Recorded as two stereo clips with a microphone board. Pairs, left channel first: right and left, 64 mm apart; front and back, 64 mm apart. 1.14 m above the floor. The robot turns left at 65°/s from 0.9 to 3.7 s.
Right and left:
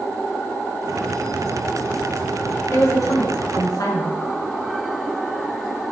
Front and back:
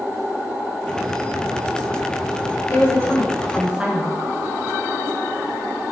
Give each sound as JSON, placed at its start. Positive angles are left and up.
{"t": 2.7, "sound": "a woman speaking", "azimuth_deg": -40, "distance_m": 1.0}